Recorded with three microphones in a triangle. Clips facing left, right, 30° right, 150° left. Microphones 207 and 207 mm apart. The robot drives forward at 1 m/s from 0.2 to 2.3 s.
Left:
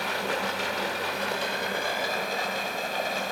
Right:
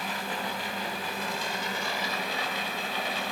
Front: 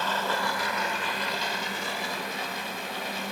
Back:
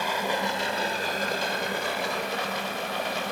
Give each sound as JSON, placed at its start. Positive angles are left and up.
{"t": 0.0, "sound": "running water", "azimuth_deg": 75, "distance_m": 1.8}